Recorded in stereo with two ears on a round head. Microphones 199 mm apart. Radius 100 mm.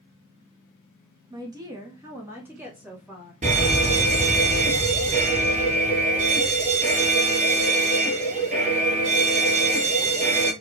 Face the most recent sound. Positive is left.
turn(degrees=-35)  # may be behind; listen again after turning